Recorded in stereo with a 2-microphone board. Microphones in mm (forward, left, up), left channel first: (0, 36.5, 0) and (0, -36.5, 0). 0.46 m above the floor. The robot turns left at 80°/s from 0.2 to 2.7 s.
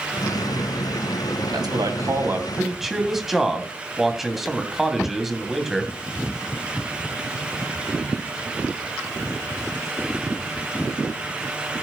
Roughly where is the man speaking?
Right.